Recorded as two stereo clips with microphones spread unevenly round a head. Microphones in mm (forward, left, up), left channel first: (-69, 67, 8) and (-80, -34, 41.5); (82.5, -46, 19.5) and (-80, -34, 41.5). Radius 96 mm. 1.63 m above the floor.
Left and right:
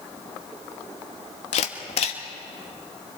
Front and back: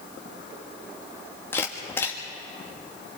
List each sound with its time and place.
1.5 s a camera shutter: 80° left, 1.4 m